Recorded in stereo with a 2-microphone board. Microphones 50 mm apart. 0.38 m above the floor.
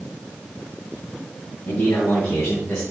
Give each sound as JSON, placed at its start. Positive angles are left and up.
{"t": 1.7, "sound": "a man speaking", "side_deg": 65, "distance_m": 3.0}